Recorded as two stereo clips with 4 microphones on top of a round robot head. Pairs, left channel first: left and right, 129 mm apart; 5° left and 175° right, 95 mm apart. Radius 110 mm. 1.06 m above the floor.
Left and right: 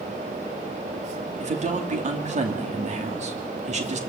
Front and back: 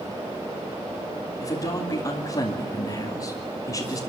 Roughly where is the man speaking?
Ahead right.